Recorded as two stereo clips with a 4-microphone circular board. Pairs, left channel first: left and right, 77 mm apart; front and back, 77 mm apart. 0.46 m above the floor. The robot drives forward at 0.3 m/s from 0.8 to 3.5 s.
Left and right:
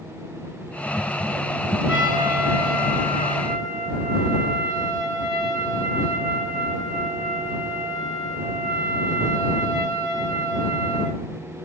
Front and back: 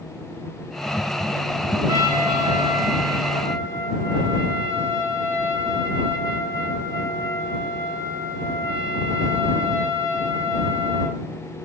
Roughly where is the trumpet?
Behind.